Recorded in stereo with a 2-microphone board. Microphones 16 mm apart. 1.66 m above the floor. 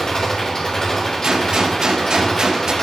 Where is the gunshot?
45° right (ahead or behind), 1.6 m.